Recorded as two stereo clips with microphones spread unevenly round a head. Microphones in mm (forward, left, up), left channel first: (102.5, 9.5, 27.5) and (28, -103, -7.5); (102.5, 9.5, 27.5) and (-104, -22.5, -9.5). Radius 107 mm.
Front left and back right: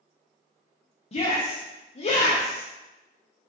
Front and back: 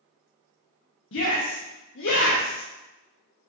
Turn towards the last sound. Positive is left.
turn(degrees=30)